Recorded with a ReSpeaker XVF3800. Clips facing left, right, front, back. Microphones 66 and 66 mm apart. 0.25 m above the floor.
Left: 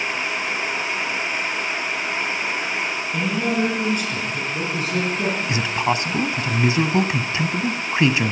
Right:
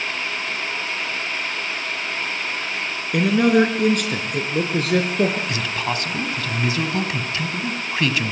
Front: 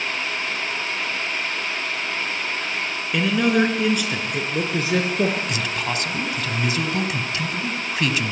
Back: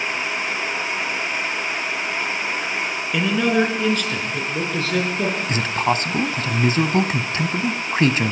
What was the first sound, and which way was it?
A man speaking, 90° right.